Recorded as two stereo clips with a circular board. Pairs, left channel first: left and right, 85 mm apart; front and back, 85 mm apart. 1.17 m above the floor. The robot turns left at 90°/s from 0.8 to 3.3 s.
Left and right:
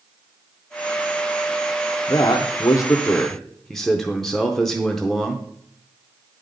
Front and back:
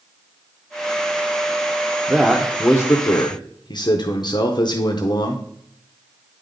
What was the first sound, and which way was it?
A man speaking, 115° left.